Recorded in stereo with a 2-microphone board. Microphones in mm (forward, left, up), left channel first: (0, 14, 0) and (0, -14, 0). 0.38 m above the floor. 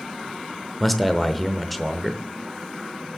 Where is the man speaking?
5° left (ahead or behind), 0.8 m.